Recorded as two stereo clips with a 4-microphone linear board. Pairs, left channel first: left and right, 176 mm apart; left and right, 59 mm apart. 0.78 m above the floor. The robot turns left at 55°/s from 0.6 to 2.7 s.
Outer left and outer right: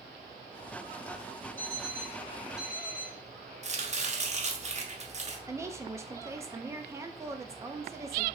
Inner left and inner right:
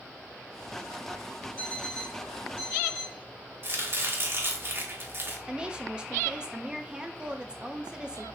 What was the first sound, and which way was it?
An alarm clock, 10° left.